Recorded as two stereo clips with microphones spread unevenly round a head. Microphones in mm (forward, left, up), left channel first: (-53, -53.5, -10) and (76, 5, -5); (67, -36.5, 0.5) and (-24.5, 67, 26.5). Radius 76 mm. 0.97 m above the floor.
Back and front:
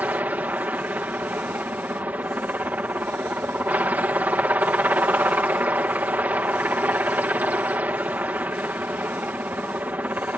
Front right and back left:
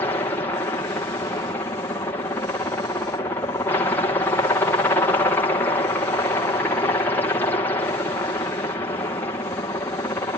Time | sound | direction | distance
0.0 | a helicopter | 40° right | ?